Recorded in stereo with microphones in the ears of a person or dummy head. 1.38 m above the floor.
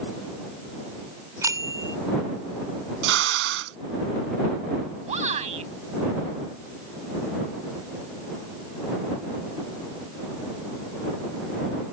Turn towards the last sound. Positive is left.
turn(degrees=-40)  # may be behind; listen again after turning